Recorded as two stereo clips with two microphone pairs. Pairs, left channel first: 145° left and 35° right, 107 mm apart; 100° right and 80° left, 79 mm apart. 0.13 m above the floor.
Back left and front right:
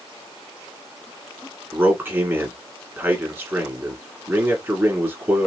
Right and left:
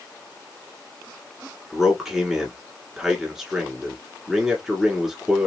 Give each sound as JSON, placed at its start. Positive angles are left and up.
{"t": 1.7, "sound": "a man speaking", "azimuth_deg": 0, "distance_m": 1.4}